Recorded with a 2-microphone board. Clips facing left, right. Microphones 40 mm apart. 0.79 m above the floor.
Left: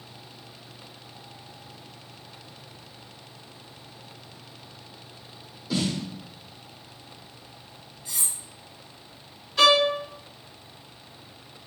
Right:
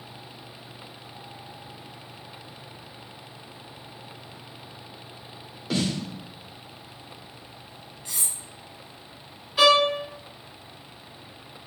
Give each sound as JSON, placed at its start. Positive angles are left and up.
{"t": 5.7, "sound": "a snare drum", "side_deg": -65, "distance_m": 0.9}
{"t": 8.1, "sound": "cutlery clinking", "side_deg": -80, "distance_m": 1.5}
{"t": 9.6, "sound": "a violin", "side_deg": -10, "distance_m": 1.1}